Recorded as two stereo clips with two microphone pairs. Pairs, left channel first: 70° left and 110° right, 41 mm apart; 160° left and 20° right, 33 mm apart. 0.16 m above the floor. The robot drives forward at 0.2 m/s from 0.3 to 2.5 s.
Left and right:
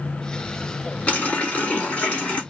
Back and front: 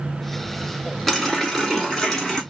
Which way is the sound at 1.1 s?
80° left.